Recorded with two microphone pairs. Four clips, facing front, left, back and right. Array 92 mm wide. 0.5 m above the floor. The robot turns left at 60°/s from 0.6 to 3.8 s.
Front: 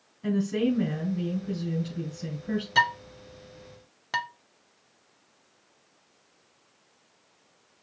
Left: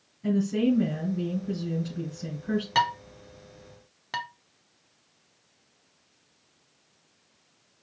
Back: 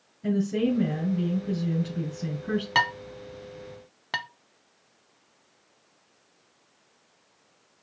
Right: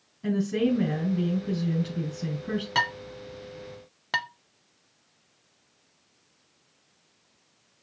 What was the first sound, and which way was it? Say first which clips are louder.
A woman speaking: left 1 dB, back 1 dB; 35° right.